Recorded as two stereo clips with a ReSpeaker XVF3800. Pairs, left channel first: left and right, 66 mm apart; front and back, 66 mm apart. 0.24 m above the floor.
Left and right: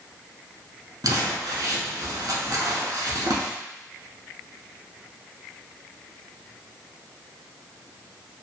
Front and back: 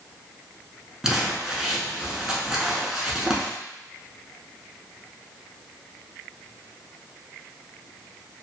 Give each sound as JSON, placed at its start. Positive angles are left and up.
{"t": 1.0, "sound": "crumpling", "azimuth_deg": -95, "distance_m": 0.7}